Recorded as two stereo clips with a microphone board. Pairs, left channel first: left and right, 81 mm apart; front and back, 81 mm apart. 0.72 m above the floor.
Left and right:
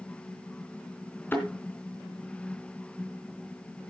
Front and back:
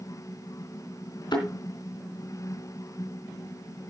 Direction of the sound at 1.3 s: 25° left.